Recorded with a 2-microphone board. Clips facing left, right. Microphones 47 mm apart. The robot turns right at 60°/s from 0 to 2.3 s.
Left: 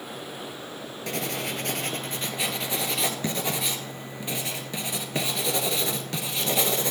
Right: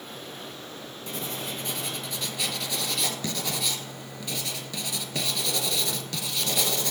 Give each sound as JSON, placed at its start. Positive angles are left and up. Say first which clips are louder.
{"t": 1.1, "sound": "writing", "louder": "left 4 dB", "azimuth_deg": 75, "distance_m": 0.5}